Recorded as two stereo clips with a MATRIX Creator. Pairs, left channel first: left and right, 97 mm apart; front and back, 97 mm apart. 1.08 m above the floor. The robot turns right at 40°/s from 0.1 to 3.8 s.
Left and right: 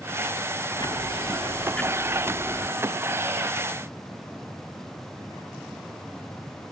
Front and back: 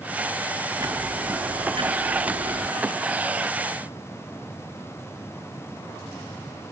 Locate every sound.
0.8 s ticking: 125° left; by 2.7 s 160° right